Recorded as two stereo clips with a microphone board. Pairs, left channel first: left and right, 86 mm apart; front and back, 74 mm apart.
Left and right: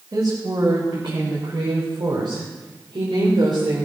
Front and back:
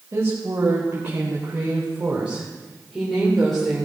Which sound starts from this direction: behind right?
A woman speaking, at 0.1 s.